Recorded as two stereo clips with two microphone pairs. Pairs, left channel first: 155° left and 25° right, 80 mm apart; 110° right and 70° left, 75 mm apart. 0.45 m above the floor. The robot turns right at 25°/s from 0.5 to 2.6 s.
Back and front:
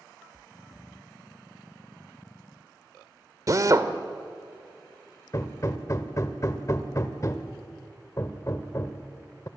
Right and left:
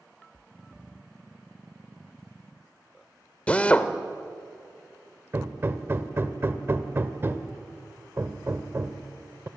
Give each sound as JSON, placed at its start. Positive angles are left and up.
{"t": 3.5, "sound": "a drill", "azimuth_deg": -40, "distance_m": 1.3}
{"t": 5.3, "sound": "hammering", "azimuth_deg": 115, "distance_m": 1.4}